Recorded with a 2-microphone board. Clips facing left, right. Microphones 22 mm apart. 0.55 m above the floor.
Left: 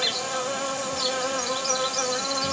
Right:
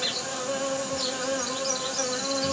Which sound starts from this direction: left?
An insect, at 0.0 s.